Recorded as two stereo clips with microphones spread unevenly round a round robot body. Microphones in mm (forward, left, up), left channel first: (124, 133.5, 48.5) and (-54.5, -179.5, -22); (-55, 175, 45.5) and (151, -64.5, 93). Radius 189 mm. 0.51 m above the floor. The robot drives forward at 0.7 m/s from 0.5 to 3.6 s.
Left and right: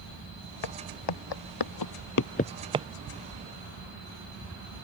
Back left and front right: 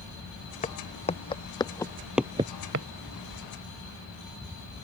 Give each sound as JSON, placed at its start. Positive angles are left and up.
{"t": 0.6, "sound": "footsteps", "azimuth_deg": 60}